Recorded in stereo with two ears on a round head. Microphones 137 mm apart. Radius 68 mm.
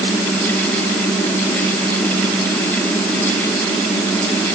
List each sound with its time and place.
Only background noise.